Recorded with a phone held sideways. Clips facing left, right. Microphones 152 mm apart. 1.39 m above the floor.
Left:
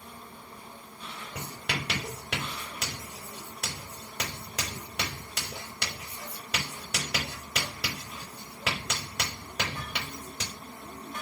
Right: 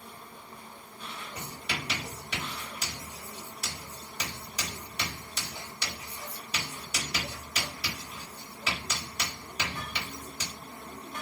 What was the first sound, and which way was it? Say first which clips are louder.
Writing: left 3 dB; 70° left (ahead or behind).